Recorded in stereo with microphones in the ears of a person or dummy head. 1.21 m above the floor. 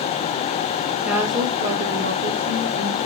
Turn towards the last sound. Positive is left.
turn(degrees=-75)  # may be behind; listen again after turning